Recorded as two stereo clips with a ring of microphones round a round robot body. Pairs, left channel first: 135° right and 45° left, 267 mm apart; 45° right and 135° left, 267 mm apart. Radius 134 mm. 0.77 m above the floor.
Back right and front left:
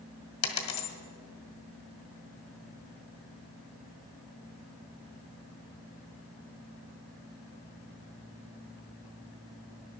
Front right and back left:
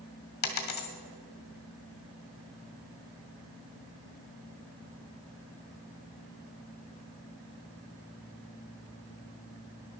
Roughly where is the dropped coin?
Right.